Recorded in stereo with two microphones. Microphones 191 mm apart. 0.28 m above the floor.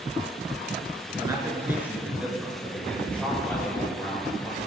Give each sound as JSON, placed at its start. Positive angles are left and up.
{"t": 1.1, "sound": "a man speaking", "side_deg": -20, "distance_m": 4.0}